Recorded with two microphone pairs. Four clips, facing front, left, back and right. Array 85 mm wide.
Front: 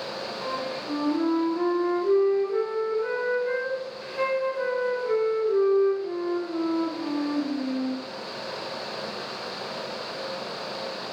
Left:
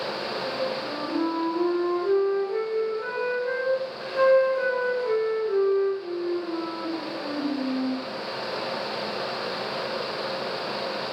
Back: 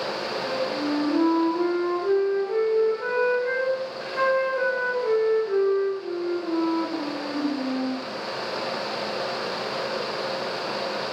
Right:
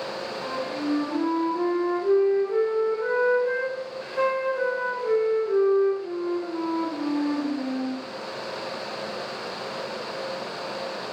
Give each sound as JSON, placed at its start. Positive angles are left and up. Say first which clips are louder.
{"t": 0.4, "sound": "a flute", "louder": "right 1 dB, back 4 dB", "azimuth_deg": -175, "distance_m": 1.1}